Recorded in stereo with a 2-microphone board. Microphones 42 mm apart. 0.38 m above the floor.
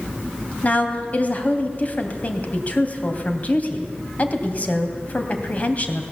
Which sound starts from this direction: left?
A woman speaking, at 0.6 s.